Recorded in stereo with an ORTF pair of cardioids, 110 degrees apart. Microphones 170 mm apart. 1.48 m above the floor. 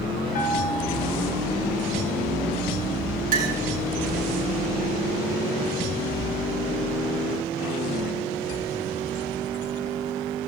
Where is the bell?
65° left, 4 m.